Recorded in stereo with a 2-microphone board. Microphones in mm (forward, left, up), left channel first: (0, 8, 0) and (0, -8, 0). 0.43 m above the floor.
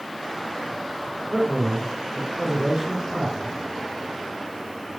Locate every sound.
1.3 s a man speaking: 50° right (ahead or behind), 5.5 m